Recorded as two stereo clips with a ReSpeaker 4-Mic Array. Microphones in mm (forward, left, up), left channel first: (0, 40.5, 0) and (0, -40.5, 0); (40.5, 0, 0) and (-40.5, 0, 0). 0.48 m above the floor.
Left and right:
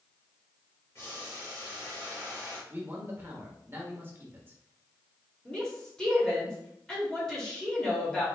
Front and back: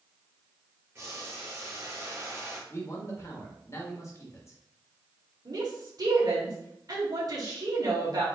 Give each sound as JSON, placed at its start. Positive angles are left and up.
{"t": 0.9, "sound": "boiling", "azimuth_deg": 130, "distance_m": 1.9}
{"t": 2.7, "sound": "a man speaking", "azimuth_deg": -35, "distance_m": 1.1}
{"t": 5.5, "sound": "a woman speaking", "azimuth_deg": 170, "distance_m": 1.4}